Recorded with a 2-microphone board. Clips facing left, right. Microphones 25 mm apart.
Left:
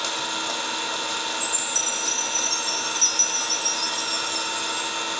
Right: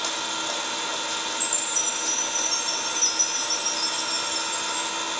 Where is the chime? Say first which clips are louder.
Left 1 dB; 55° left (ahead or behind), 3.5 m.